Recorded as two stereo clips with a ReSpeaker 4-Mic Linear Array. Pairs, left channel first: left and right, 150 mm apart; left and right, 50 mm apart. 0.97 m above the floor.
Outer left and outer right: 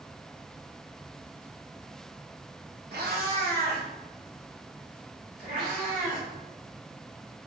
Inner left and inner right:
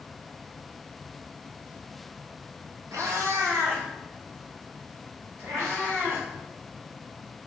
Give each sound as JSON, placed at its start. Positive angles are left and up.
{"t": 2.9, "sound": "a cat meowing", "side_deg": -80, "distance_m": 1.0}